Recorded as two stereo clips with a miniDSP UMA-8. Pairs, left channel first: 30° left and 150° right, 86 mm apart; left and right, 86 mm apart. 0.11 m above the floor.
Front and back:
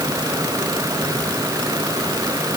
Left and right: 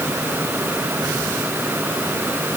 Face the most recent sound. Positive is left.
No sound to turn to.